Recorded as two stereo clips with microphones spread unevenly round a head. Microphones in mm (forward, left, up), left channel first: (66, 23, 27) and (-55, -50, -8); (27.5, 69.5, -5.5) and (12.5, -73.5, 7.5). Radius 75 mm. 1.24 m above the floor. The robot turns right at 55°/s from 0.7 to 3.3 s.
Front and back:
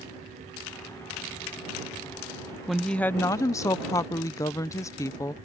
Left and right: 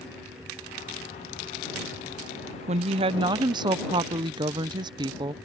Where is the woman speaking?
80° right; by 5.3 s 45° right.